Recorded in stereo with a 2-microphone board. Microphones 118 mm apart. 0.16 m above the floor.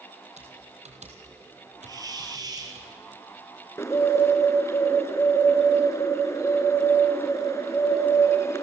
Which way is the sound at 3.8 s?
25° left (ahead or behind).